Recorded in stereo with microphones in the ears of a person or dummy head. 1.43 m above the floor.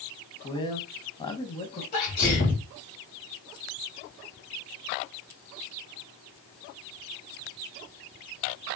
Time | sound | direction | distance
0.4 | a man speaking | 25° left (ahead or behind) | 1.1 m
1.9 | a sneeze | 50° left (ahead or behind) | 3 m